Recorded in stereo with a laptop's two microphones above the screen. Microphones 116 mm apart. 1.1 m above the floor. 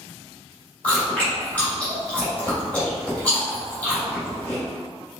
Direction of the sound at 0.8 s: 10° left (ahead or behind).